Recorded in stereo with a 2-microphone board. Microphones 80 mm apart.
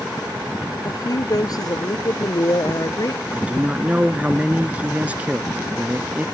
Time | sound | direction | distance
0.8 | a woman speaking | 50° left (ahead or behind) | ?
3.3 | a man speaking | 15° right (ahead or behind) | ?